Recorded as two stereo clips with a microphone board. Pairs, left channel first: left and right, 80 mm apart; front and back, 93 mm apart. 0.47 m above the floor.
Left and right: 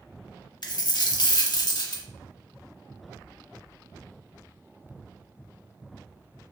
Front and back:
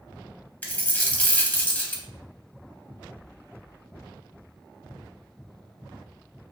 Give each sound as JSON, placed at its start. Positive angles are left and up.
{"t": 0.6, "sound": "a dropped coin", "azimuth_deg": 70, "distance_m": 0.6}